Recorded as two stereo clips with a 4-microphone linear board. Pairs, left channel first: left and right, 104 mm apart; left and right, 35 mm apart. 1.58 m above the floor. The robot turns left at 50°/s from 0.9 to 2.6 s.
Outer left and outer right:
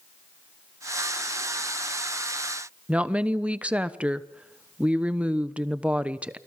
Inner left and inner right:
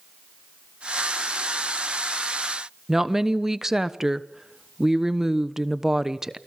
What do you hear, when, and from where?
2.9 s a woman speaking: 10° right (ahead or behind), 1.0 m